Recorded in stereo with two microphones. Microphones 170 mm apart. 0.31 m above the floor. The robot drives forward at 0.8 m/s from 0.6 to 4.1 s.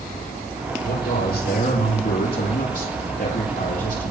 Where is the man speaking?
80° left, 8.5 m; by 4.1 s 70° left (ahead or behind), 9 m.